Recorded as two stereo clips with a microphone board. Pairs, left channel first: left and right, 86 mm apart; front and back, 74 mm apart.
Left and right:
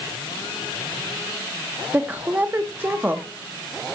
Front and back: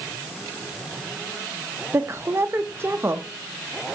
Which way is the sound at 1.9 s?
145° right.